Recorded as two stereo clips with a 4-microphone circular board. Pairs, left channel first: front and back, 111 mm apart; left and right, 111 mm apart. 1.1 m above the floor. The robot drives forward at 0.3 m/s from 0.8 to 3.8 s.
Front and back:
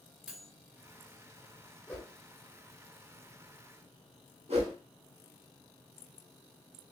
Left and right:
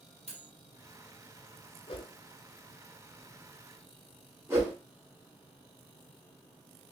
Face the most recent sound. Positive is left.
turn(degrees=-160)